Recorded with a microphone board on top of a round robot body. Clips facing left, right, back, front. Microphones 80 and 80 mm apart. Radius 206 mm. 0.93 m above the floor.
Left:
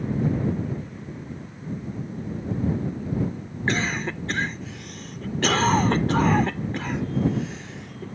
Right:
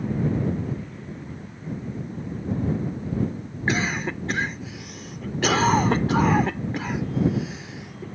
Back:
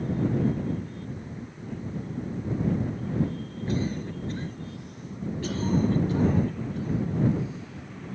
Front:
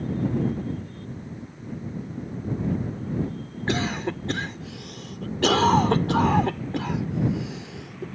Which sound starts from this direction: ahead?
A cough, at 3.7 s.